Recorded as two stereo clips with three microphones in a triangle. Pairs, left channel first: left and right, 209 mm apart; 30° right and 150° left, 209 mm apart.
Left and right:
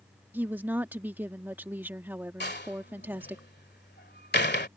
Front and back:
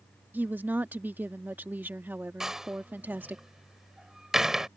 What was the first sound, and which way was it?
A woman speaking, 150° right.